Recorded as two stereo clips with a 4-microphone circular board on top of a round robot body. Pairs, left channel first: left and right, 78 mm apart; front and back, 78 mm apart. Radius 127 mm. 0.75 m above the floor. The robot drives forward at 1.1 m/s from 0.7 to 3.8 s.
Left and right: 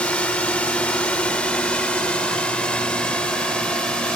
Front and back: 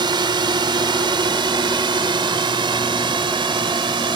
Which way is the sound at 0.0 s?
165° left.